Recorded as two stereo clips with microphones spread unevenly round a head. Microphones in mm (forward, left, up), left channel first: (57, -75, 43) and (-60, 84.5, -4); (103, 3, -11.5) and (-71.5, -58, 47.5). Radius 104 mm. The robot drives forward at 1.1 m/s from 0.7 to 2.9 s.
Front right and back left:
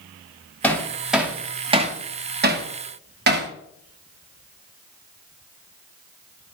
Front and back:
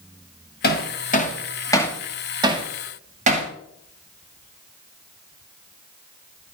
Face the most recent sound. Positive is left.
turn(degrees=140)